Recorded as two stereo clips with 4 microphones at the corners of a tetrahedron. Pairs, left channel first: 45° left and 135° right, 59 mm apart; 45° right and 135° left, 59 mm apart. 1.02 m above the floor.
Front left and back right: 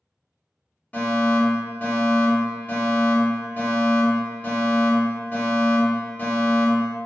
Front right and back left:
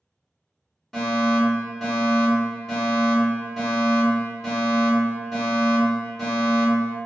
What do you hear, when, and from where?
0.9 s a fire alarm: 35° left, 1.4 m